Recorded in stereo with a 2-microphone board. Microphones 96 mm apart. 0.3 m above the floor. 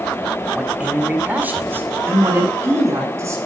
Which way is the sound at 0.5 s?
5° right (ahead or behind).